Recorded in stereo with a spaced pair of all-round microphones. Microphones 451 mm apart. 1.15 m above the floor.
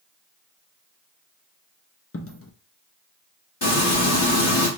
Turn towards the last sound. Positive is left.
turn(degrees=65)  # may be behind; listen again after turning